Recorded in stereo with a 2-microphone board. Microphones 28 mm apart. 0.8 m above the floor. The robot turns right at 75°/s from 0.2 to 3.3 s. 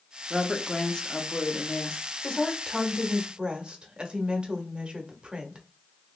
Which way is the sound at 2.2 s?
135° left.